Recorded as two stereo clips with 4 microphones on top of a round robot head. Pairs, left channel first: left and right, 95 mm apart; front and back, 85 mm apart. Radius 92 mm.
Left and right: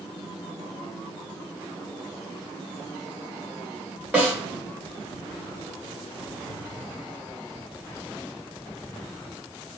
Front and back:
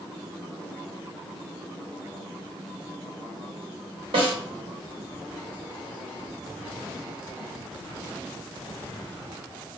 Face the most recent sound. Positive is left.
turn(degrees=-165)